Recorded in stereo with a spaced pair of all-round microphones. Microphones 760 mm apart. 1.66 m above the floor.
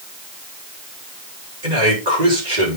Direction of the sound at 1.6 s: 65° right (ahead or behind).